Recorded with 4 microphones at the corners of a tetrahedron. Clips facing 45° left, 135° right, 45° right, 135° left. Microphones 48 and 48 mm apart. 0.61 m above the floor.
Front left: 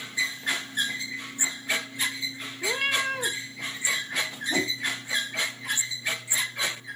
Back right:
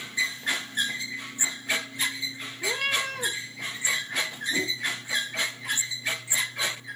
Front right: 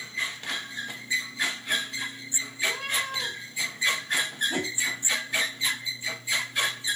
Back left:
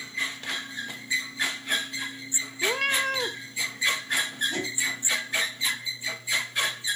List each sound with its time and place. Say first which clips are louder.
2.6 s a cat meowing: front left 1 dB, back left 4 dB; 120° left, 1.3 m
4.5 s a whoosh: front left 2 dB, front right 1 dB; 30° left, 3 m